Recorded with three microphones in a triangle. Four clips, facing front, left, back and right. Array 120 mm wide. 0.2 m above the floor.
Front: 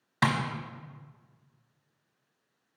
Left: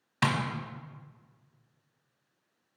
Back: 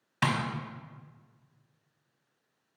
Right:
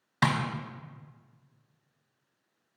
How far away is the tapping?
About 0.9 m.